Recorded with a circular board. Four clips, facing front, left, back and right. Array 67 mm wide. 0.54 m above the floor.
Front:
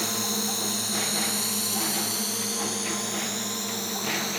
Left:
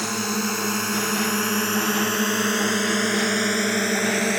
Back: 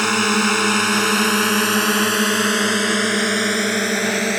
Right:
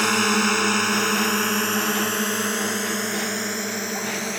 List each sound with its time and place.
0.0 s a drone: 150° right; by 4.4 s 155° left